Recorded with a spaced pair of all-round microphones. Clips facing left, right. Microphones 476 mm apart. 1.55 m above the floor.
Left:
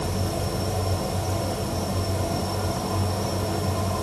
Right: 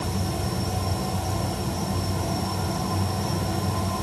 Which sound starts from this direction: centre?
An insect, at 0.0 s.